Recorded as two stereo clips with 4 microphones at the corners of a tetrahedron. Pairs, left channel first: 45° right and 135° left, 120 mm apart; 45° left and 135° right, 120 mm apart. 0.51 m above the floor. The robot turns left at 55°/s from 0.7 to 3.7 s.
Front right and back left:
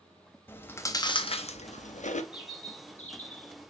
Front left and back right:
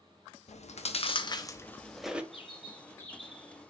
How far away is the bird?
About 1.6 m.